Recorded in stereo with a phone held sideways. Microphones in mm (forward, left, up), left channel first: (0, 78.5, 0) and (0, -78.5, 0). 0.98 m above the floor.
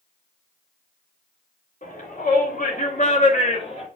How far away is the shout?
About 3.5 m.